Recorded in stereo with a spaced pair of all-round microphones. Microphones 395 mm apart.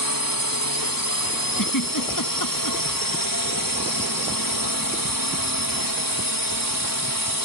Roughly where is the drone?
Left.